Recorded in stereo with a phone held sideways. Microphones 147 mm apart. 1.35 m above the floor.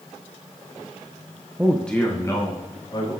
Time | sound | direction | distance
1.6 | a man speaking | 15° right (ahead or behind) | 0.6 m